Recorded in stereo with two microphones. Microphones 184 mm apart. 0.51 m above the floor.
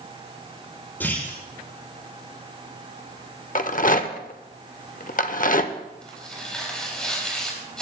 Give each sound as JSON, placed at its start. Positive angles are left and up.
{"t": 1.0, "sound": "a clunk", "side_deg": 10, "distance_m": 8.0}
{"t": 3.5, "sound": "a rattle", "side_deg": 50, "distance_m": 0.8}
{"t": 6.0, "sound": "tearing paper", "side_deg": 5, "distance_m": 4.0}